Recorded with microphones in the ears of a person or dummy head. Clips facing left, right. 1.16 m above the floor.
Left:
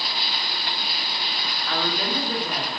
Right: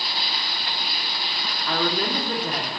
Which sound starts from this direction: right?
A woman speaking, at 1.7 s.